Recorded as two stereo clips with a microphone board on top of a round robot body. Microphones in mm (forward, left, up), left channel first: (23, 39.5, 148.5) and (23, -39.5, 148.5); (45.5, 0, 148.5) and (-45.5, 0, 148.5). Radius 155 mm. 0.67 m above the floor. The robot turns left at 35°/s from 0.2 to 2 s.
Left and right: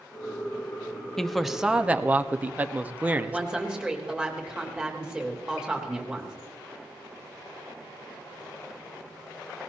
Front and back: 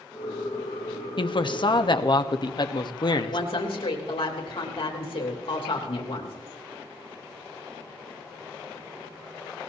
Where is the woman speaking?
10° right, 3 m.